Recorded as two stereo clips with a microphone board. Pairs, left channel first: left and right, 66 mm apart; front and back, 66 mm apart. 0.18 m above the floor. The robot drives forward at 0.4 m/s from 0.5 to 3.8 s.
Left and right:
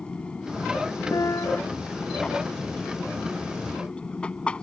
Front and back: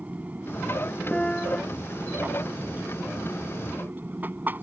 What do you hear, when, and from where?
0.0 s an aircraft: 145° left; by 4.6 s 150° left
1.1 s a piano: 75° left; by 1.6 s 80° left